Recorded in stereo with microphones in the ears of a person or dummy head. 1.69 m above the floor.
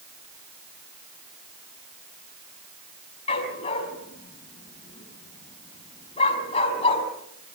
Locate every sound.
3.3 s a dog barking: 35° left (ahead or behind), 5.5 m